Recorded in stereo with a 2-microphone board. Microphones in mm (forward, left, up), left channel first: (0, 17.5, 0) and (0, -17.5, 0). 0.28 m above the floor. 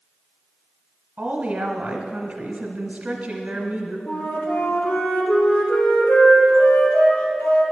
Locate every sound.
1.2 s a woman speaking: 45° right (ahead or behind), 1.2 m
4.1 s a flute: 70° left (ahead or behind), 2.5 m